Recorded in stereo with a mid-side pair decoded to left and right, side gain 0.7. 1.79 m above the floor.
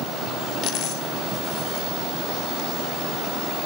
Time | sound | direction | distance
0.6 | a dropped coin | 50° left | 3.5 m